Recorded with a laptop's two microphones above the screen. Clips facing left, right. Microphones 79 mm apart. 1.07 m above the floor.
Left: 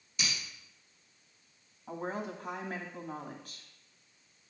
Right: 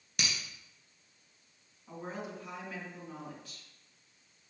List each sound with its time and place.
0.2 s breaking glass: 70° right (ahead or behind), 2.5 m
1.9 s a woman speaking: 45° left (ahead or behind), 1.8 m